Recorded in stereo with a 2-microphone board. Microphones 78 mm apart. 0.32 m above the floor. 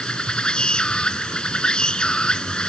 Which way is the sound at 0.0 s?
10° left (ahead or behind).